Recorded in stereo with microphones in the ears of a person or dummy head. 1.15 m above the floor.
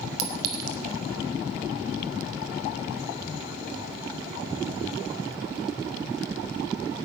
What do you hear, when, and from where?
0.2 s a clink: 85° right, 1.1 m